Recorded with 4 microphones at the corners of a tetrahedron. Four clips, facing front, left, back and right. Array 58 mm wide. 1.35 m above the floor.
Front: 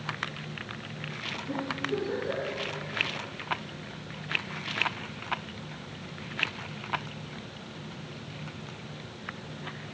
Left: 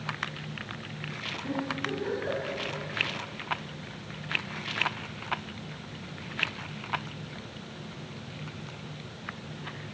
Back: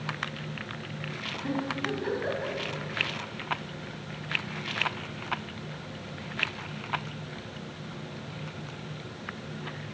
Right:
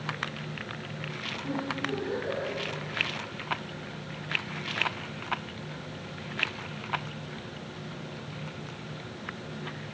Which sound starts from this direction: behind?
A giggle, at 1.4 s.